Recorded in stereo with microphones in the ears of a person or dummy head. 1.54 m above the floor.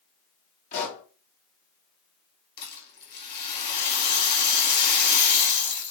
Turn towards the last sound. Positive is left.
turn(degrees=55)  # may be behind; listen again after turning